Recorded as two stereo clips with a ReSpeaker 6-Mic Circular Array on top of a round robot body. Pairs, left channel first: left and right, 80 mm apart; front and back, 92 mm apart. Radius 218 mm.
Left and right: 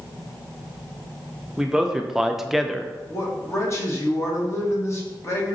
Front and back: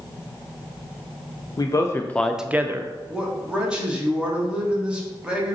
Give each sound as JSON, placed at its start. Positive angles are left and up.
{"t": 1.6, "sound": "a man speaking", "azimuth_deg": -10, "distance_m": 0.7}
{"t": 3.1, "sound": "a man speaking", "azimuth_deg": 105, "distance_m": 1.5}